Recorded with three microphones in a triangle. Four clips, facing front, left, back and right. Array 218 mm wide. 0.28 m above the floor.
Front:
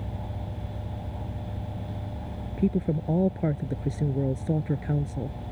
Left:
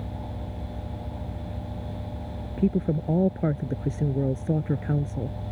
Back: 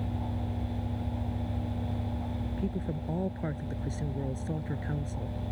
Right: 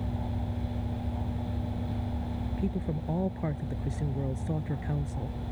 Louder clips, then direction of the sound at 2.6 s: Left 10 dB, front 11 dB; 50° left.